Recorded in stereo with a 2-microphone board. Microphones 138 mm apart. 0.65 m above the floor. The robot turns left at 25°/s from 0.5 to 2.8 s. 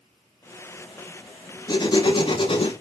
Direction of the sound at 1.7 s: 30° left (ahead or behind).